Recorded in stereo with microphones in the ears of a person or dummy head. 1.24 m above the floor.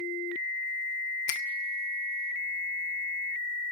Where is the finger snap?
65° left (ahead or behind), 0.9 m.